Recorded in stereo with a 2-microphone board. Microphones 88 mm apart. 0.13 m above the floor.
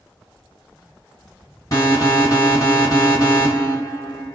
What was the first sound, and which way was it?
An alarm, 40° left (ahead or behind).